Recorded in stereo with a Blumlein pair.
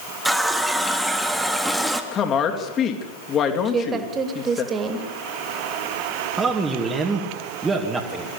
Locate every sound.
0.2 s a running tap: 5° right, 1.9 m
2.1 s a woman speaking: 30° left, 3 m
3.6 s a woman speaking: 20° right, 3 m
6.4 s a man speaking: 15° right, 2.5 m